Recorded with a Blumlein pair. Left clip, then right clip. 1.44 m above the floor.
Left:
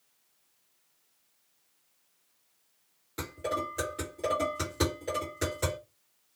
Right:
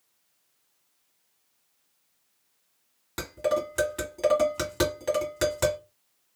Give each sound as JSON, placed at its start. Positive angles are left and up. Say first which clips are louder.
{"t": 3.2, "sound": "dishes clattering", "louder": "right 6 dB", "azimuth_deg": -55, "distance_m": 1.6}